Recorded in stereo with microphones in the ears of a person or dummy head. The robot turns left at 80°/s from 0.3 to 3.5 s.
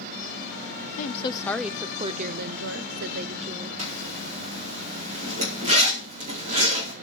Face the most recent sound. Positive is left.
turn(degrees=-30)  # may be behind; listen again after turning